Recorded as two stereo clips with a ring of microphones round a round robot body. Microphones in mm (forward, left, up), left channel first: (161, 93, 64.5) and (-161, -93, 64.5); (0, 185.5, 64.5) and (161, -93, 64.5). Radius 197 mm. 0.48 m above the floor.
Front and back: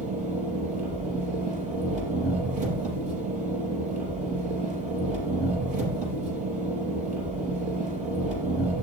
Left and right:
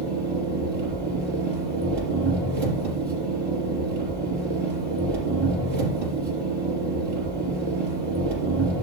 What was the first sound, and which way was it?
An engine running, 80° right.